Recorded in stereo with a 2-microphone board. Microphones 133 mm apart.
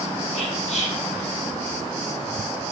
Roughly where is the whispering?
Left.